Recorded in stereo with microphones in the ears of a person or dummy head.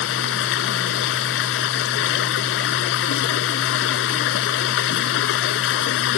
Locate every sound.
0.0 s running water: 70° left (ahead or behind)